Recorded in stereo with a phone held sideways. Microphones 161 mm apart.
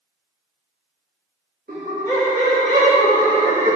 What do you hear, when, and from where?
1.7 s laughter: 80° right, 1.9 m; by 3.8 s 50° right (ahead or behind), 1.0 m